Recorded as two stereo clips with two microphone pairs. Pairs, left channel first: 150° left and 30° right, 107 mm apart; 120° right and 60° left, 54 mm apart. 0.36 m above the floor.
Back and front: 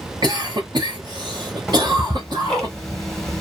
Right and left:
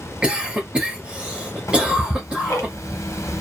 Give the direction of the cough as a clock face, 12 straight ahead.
12 o'clock.